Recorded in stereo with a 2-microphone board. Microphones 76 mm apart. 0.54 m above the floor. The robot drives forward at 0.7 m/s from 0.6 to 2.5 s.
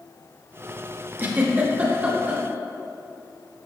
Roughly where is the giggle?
Right.